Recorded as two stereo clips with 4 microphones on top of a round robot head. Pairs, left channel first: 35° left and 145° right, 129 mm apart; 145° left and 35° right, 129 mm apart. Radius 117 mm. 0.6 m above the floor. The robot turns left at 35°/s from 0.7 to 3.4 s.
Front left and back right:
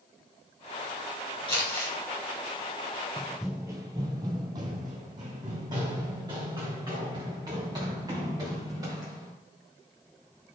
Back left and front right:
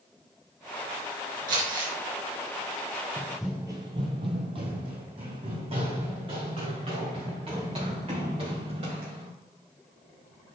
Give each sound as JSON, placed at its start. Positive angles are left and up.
{"t": 1.5, "sound": "crumpling", "azimuth_deg": -20, "distance_m": 3.5}
{"t": 3.2, "sound": "running footsteps", "azimuth_deg": 110, "distance_m": 0.6}